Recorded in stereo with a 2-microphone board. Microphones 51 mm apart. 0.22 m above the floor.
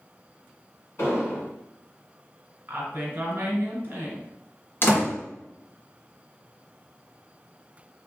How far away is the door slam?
About 1.6 m.